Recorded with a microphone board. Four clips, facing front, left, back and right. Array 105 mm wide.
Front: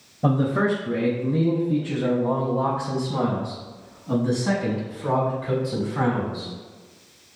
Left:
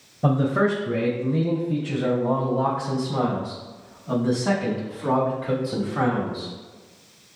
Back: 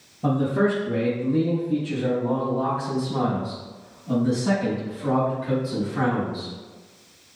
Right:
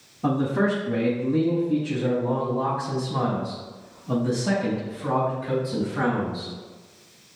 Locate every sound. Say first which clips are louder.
0.2 s a man speaking: left 2 dB, even; 55° left, 3.5 m; by 6.5 s 100° left, 5 m